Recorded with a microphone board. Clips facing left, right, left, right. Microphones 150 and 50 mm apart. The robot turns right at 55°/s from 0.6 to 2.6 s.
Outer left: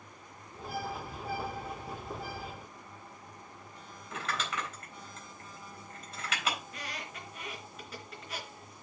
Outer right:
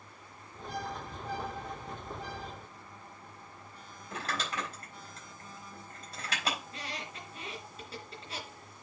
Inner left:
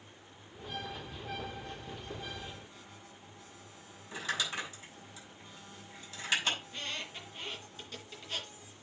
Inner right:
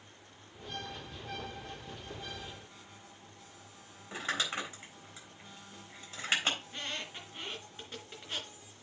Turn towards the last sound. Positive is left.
turn(degrees=-30)  # may be behind; listen again after turning